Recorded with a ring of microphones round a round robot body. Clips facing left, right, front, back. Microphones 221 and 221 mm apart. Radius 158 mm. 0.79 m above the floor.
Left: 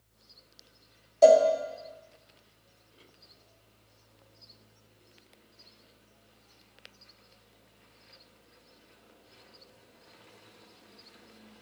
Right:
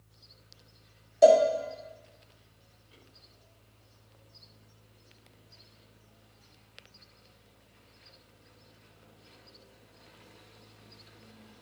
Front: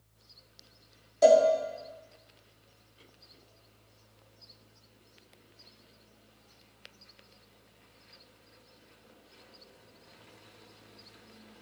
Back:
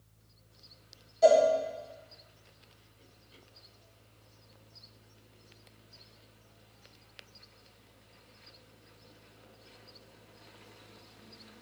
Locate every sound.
1.2 s a cowbell: 15° right, 1.8 m